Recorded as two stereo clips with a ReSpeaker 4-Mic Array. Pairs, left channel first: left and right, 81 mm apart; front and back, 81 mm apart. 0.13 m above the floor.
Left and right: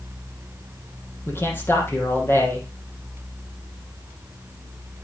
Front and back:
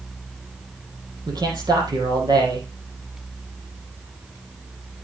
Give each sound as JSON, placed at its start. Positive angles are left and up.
{"t": 1.3, "sound": "a man speaking", "azimuth_deg": 150, "distance_m": 4.5}